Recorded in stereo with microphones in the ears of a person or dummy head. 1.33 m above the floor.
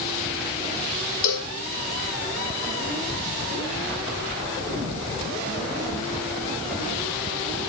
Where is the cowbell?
70° left (ahead or behind), 1.1 m.